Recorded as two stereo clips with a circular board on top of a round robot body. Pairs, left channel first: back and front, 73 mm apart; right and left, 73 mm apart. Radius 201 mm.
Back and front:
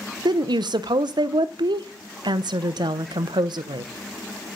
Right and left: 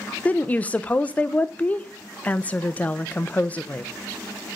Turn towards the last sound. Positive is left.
turn(degrees=-20)